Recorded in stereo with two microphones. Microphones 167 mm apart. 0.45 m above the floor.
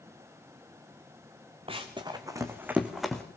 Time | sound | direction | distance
1.7 | running footsteps | 30° right (ahead or behind) | 2.5 m